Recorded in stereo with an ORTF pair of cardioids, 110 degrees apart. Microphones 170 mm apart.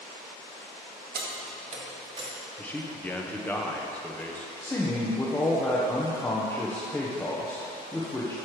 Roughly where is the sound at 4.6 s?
Ahead.